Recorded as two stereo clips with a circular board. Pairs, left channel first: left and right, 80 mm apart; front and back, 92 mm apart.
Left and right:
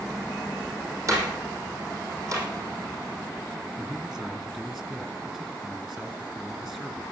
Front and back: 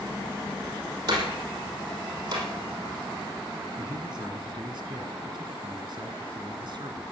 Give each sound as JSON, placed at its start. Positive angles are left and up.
{"t": 1.1, "sound": "a door slam", "azimuth_deg": -135, "distance_m": 6.0}
{"t": 3.8, "sound": "a man speaking", "azimuth_deg": -170, "distance_m": 2.5}